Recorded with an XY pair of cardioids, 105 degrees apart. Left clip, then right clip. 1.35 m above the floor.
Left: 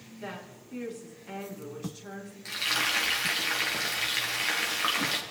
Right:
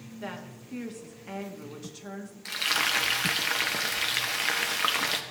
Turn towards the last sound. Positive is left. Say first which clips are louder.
# right 1 dB
turn(degrees=-25)